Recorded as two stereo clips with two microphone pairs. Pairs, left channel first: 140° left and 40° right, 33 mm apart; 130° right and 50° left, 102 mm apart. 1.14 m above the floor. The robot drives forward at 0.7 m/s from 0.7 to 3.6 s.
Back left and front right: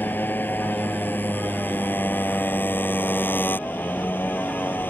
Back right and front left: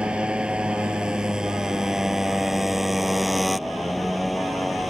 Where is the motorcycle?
130° left; by 4.9 s 140° left.